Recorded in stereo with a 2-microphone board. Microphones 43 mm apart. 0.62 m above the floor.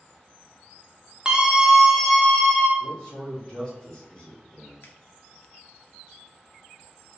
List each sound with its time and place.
1.2 s a scream: 20° right (ahead or behind), 0.8 m; by 2.7 s 20° left (ahead or behind), 0.7 m
2.8 s a man speaking: 25° left (ahead or behind), 1.7 m
4.8 s a finger snap: 60° left (ahead or behind), 0.7 m